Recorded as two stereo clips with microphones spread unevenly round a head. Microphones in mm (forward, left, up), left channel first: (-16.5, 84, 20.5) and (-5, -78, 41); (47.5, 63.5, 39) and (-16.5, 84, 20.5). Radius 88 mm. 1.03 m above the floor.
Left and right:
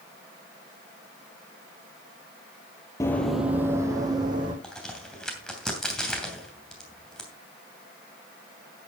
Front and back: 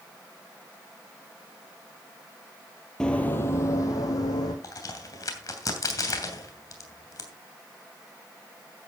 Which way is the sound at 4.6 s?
5° left.